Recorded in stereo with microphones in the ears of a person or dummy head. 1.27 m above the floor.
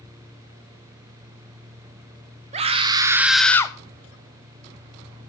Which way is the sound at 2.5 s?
35° right (ahead or behind).